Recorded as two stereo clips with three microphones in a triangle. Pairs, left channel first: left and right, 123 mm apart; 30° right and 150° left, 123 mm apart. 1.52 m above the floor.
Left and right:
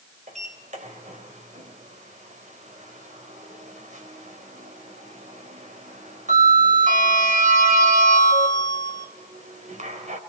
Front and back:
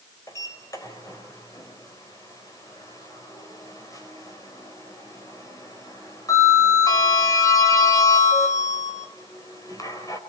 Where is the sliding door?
90° right, 4 m.